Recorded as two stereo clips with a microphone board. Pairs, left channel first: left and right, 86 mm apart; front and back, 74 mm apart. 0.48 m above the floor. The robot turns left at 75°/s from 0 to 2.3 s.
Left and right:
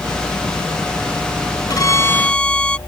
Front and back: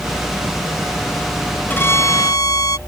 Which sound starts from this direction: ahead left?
A violin, at 1.7 s.